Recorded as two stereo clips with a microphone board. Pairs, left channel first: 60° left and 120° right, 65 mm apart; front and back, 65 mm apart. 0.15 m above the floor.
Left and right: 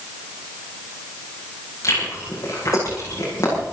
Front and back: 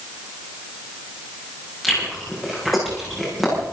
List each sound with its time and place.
1.8 s chewing: 90° left, 7.5 m